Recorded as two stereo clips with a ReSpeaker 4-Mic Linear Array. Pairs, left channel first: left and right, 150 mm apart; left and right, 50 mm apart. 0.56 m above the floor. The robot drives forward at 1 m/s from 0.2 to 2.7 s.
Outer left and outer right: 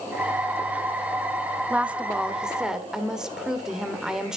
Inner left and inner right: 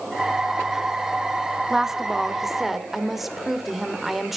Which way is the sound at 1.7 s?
10° right (ahead or behind).